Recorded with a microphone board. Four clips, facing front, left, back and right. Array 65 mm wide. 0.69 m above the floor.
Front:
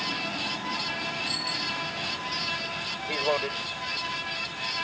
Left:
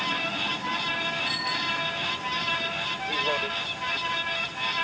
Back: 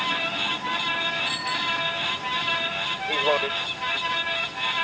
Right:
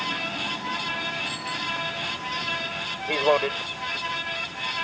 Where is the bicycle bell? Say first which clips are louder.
Left 1 dB, back 6 dB; 115° left.